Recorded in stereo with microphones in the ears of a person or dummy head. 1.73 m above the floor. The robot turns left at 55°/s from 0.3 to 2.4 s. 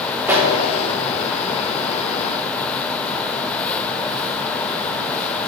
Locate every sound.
0.3 s a pop: 10° right (ahead or behind), 2 m; by 0.5 s centre (ahead or behind), 2 m